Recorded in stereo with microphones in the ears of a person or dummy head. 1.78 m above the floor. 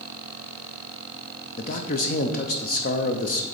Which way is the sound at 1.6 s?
40° left (ahead or behind).